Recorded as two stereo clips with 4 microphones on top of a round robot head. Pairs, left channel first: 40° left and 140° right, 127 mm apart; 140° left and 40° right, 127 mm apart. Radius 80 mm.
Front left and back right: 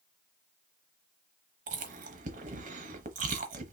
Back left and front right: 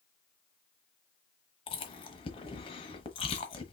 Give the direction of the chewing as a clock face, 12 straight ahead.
6 o'clock.